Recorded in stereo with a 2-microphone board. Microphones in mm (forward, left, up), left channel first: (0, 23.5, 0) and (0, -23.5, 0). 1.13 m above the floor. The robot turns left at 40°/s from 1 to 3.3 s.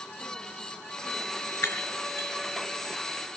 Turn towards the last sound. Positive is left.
turn(degrees=45)  # may be behind; listen again after turning